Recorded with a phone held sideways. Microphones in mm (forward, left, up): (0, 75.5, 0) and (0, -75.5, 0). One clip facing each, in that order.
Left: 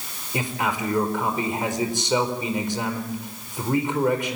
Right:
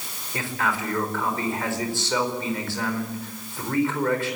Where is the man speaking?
20° left (ahead or behind), 4.5 m.